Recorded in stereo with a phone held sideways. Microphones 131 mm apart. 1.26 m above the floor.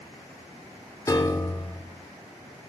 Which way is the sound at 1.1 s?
25° left (ahead or behind).